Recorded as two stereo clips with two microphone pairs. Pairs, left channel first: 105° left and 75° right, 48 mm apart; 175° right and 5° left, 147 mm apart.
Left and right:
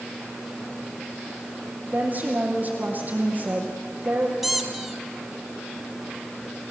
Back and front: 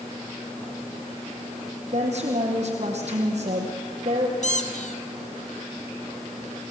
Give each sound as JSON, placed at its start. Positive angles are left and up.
{"t": 1.9, "sound": "a woman speaking", "azimuth_deg": -25, "distance_m": 4.5}
{"t": 4.4, "sound": "a squeak", "azimuth_deg": -160, "distance_m": 1.7}